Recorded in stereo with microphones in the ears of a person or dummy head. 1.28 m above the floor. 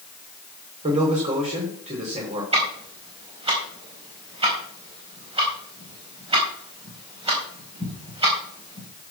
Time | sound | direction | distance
0.8 | a man speaking | 35° right (ahead or behind) | 5 m
2.5 | ticking | 25° right (ahead or behind) | 4.5 m